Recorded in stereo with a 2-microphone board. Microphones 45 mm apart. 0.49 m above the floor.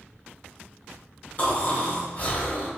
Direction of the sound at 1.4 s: 35° left (ahead or behind).